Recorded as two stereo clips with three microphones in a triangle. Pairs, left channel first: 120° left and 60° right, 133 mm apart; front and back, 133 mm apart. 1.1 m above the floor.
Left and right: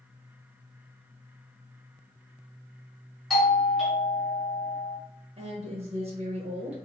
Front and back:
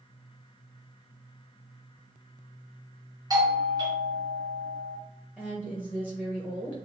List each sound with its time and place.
3.3 s a doorbell: 155° right, 1.3 m
5.4 s a woman speaking: 80° right, 0.9 m